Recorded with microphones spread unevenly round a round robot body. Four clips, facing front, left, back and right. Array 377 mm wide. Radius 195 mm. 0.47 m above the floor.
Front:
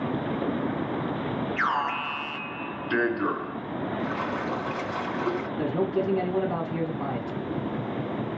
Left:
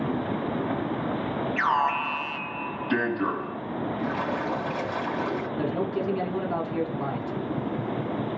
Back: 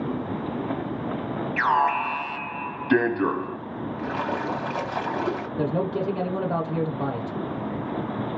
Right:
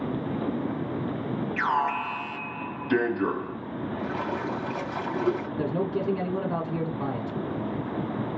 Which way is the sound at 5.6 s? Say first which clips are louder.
Even, even; 155° right.